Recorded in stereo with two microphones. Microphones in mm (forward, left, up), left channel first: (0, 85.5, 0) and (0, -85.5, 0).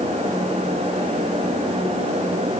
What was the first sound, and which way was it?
Only background noise.